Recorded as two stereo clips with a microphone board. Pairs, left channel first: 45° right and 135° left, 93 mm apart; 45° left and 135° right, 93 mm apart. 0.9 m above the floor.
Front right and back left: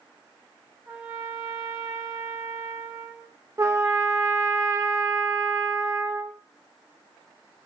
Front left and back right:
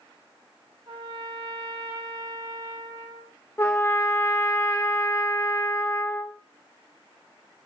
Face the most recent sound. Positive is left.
turn(degrees=100)